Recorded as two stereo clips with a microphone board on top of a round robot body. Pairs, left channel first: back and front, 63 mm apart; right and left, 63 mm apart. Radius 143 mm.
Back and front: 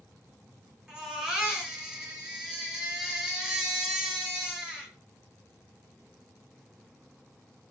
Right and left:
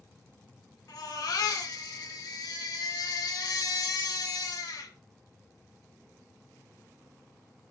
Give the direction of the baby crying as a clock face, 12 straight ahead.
3 o'clock.